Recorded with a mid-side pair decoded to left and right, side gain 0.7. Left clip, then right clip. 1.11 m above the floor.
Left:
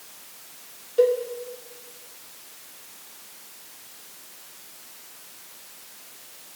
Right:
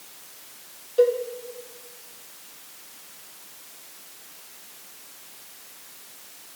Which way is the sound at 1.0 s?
Straight ahead.